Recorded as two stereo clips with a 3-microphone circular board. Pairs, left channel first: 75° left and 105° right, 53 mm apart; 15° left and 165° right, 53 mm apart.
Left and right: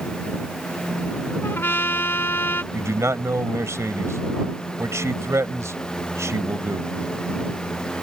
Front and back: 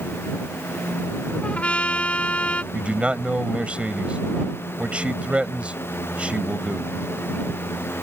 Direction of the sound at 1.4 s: 70° left.